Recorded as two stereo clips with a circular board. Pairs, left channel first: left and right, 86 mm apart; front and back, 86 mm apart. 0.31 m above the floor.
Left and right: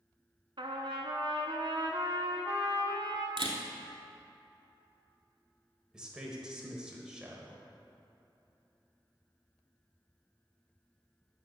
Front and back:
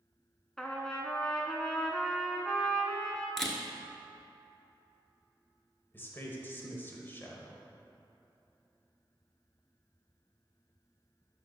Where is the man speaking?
20° right, 0.9 m.